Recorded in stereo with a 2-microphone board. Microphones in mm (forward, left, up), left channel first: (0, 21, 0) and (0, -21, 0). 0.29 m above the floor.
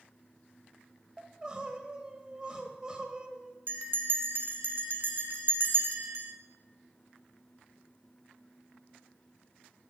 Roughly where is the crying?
Centre.